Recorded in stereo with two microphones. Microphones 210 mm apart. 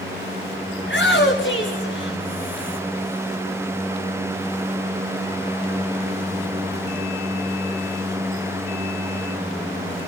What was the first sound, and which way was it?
A shout, 60° left (ahead or behind).